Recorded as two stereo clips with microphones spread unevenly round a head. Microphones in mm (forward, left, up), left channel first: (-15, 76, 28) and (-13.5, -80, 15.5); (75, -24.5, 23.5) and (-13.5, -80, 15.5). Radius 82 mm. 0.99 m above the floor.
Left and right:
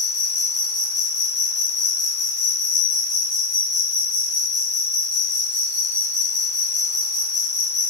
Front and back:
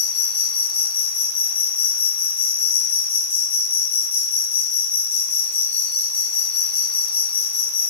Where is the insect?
30° left, 2.0 m.